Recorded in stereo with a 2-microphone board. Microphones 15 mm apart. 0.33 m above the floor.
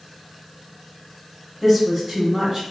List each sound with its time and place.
1.6 s a woman speaking: 10° right (ahead or behind), 1.5 m